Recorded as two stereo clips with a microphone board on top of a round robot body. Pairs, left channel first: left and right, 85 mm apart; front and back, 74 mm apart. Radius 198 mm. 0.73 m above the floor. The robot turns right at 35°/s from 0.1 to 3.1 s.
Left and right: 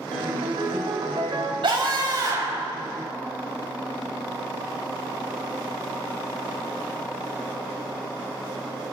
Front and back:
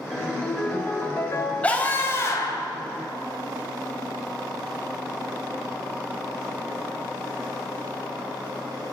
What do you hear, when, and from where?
0.1 s a ringtone: 90° right, 3.5 m; by 1.5 s 40° right, 3.5 m
1.6 s a scream: 70° right, 6.5 m; by 2.7 s 35° right, 6.5 m